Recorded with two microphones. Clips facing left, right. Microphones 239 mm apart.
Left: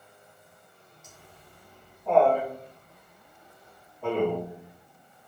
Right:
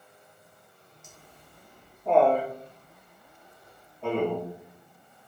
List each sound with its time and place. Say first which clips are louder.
1.0 s laughter: left 1 dB; 55° right (ahead or behind), 0.9 m; by 4.5 s 5° left (ahead or behind), 1.9 m